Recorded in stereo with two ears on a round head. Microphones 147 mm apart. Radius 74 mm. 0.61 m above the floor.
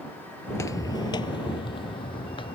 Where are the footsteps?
15° left (ahead or behind); by 2.6 s 30° left (ahead or behind).